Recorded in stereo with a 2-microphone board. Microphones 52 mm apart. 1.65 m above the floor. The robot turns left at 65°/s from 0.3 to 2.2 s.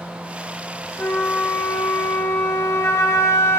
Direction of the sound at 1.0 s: 145° left.